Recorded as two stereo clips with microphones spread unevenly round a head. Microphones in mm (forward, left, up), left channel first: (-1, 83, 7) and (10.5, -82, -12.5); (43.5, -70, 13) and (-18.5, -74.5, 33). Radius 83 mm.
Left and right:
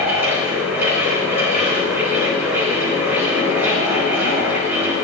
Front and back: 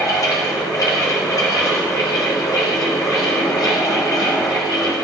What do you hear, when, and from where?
0.0 s a fan: 5° right, 5 m